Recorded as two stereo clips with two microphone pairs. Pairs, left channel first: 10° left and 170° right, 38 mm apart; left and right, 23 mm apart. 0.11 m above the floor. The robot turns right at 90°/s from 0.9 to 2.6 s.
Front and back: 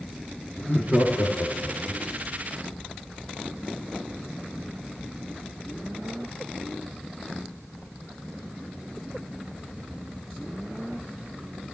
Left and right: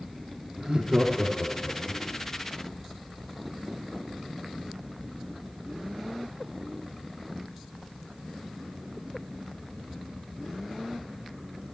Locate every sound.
0.6 s laughter: 40° right, 2.5 m; by 2.0 s 60° left, 2.5 m